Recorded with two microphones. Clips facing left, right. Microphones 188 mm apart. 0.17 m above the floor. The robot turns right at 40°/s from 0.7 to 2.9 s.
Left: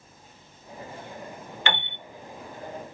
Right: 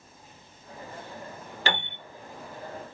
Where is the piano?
40° right (ahead or behind), 0.7 m; by 2.0 s 50° right (ahead or behind), 0.7 m.